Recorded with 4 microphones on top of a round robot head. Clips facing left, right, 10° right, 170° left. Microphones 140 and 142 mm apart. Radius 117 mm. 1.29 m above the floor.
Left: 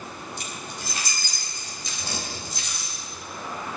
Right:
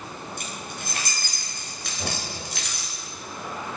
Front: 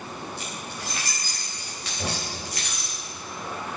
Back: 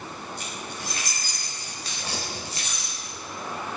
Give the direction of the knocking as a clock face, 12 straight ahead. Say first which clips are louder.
Right 2 dB, front 4 dB; 1 o'clock.